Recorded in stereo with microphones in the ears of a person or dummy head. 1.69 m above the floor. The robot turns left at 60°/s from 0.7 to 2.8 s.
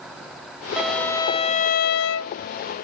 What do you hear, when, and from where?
0.8 s a violin: 175° right; by 2.3 s 95° left